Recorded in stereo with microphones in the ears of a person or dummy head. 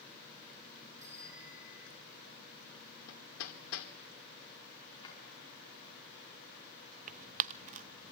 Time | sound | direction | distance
1.0 | a bicycle bell | 30° right (ahead or behind) | 5 m
3.1 | hammering | 75° left (ahead or behind) | 2 m
5.0 | a drawer | 25° left (ahead or behind) | 6 m
7.1 | tearing paper | 40° right (ahead or behind) | 0.6 m